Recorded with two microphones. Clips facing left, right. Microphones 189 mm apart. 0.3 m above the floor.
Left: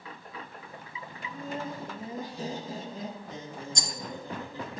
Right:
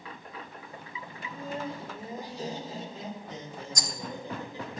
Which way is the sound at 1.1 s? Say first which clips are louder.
Even; 55° left (ahead or behind).